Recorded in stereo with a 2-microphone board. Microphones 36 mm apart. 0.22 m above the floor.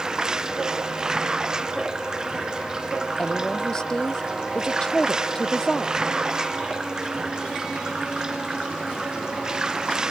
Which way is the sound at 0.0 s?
20° right (ahead or behind).